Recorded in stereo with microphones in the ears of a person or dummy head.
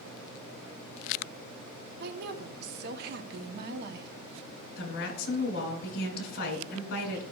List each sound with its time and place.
2.0 s a woman speaking: 60° right (ahead or behind), 0.9 m
4.8 s a woman speaking: 60° left (ahead or behind), 3 m